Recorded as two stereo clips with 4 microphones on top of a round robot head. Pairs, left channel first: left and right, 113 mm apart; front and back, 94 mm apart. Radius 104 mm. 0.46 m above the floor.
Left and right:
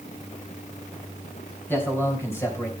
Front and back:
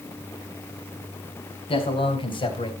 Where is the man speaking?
15° left, 4.5 m; by 2.7 s 25° left, 3.5 m.